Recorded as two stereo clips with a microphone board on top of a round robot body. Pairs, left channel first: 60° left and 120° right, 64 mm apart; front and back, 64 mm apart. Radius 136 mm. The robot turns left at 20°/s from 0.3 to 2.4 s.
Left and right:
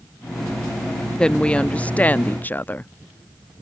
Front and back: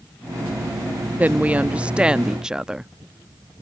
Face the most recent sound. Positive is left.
turn(degrees=105)